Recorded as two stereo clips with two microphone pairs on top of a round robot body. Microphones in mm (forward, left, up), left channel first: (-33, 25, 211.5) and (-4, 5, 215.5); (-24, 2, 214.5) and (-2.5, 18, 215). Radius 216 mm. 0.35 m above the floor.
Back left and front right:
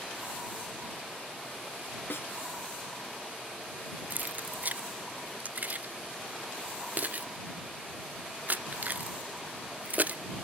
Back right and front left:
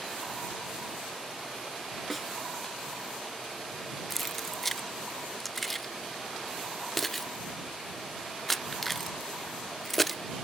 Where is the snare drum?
135° left.